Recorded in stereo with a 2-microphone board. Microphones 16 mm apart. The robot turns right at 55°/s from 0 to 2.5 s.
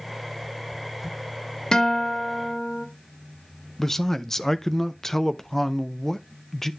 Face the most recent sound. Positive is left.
turn(degrees=25)  # may be behind; listen again after turning